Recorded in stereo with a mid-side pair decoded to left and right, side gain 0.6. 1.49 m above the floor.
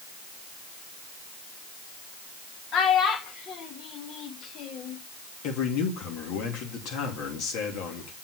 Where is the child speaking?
55° left, 1.7 m.